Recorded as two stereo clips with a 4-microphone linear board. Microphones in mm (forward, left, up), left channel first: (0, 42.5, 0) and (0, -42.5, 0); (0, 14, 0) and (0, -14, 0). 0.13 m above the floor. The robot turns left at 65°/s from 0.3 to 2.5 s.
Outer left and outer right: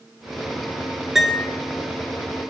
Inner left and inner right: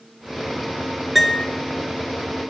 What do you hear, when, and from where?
1.1 s a piano: 5° right (ahead or behind), 0.6 m; by 1.5 s 15° left (ahead or behind), 0.6 m